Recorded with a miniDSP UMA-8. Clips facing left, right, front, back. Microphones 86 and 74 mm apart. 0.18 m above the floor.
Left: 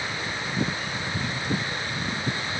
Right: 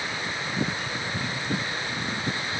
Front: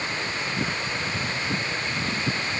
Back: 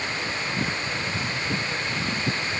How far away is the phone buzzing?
I don't hear a phone buzzing.